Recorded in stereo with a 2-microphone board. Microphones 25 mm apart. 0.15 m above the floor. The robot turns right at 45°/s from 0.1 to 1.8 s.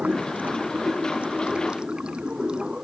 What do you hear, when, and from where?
0.0 s running water: 115° right; by 2.8 s 35° right